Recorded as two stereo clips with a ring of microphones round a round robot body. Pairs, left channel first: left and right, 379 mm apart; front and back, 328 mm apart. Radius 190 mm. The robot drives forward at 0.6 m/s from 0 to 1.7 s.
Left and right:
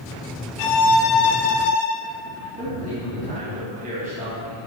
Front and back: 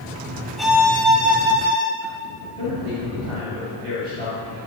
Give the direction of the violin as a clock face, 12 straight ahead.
9 o'clock.